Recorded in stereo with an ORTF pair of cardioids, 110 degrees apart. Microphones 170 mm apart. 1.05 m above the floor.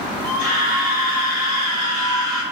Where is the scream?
55° left, 1.3 m.